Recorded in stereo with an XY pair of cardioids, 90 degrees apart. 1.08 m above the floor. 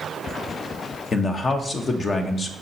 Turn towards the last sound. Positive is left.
turn(degrees=45)